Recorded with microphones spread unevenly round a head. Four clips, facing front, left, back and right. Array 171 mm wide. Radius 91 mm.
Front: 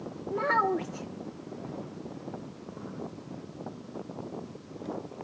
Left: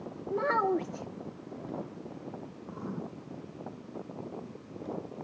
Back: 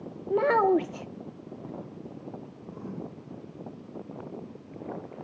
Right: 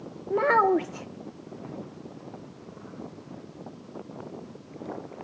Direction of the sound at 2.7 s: 125° left.